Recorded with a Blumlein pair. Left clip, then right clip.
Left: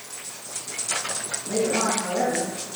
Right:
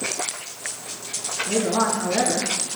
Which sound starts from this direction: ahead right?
A woman speaking, at 1.5 s.